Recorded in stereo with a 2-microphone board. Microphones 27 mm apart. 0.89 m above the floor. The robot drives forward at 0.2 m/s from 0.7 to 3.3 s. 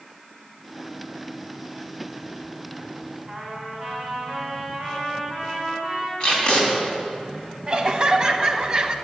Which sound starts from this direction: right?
Laughter, at 7.7 s.